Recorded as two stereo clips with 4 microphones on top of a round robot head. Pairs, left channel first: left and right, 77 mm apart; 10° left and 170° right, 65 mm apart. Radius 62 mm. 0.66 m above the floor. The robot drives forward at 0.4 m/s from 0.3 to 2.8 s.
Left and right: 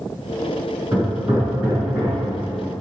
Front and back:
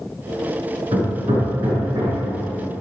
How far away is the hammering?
About 5.5 m.